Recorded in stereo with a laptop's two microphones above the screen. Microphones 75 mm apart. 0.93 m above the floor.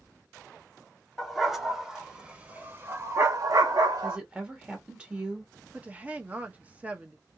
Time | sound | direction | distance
1.2 | a dog barking | centre (ahead or behind) | 1.6 m
4.0 | a woman speaking | 15° right (ahead or behind) | 0.8 m
5.7 | a woman speaking | 20° right (ahead or behind) | 0.7 m